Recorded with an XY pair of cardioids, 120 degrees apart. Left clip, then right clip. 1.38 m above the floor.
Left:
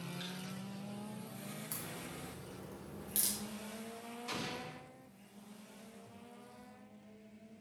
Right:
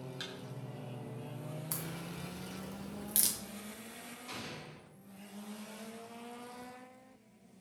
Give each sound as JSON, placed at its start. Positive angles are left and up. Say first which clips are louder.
{"t": 0.2, "sound": "a thud", "louder": "right 4 dB", "azimuth_deg": -40, "distance_m": 4.0}
{"t": 1.7, "sound": "a crack", "louder": "right 3 dB", "azimuth_deg": -35, "distance_m": 1.8}
{"t": 4.3, "sound": "an explosion", "louder": "left 4 dB", "azimuth_deg": 30, "distance_m": 2.5}